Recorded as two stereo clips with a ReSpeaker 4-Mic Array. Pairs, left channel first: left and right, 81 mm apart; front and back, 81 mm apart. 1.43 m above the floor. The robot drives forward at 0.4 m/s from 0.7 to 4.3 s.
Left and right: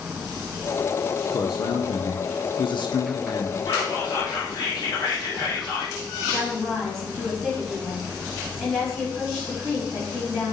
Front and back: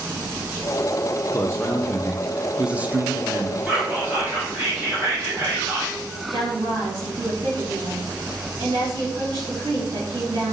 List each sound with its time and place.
1.3 s a man speaking: 55° left, 0.7 m; by 3.6 s 130° left, 0.8 m
3.7 s whispering: 110° left, 1.4 m; by 5.9 s 120° left, 1.5 m
6.3 s a woman speaking: 170° left, 3.5 m